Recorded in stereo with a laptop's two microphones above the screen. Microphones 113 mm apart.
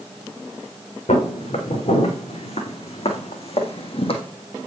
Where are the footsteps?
75° left (ahead or behind), 3.5 m; by 4.2 s 55° left (ahead or behind), 1.6 m.